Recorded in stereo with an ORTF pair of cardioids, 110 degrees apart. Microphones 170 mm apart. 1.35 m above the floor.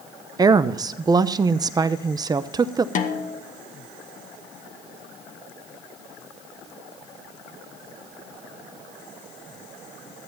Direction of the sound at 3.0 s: 50° left.